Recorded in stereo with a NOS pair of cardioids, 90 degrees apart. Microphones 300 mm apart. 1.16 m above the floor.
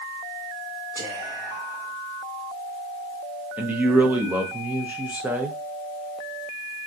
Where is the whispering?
30° right, 2 m.